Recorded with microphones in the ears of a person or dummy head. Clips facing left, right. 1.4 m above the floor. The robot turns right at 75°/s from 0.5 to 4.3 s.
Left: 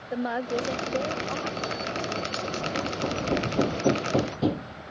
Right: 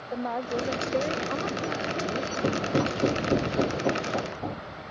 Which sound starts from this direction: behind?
A woman speaking, at 0.1 s.